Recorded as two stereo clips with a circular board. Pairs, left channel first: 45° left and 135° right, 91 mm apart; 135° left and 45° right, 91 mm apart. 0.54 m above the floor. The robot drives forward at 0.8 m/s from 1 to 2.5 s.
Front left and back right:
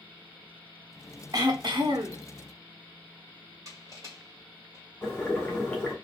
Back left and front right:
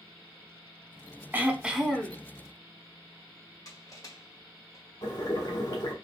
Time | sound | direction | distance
1.3 | throat clearing | 105° right | 0.8 m
3.6 | crushing | straight behind | 1.7 m
5.0 | boiling | 125° left | 1.7 m